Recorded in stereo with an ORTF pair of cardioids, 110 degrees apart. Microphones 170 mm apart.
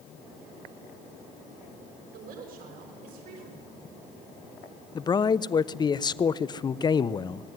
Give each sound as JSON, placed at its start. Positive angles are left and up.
{"t": 2.1, "sound": "a woman speaking", "azimuth_deg": -60, "distance_m": 6.0}
{"t": 5.0, "sound": "a man speaking", "azimuth_deg": 25, "distance_m": 0.8}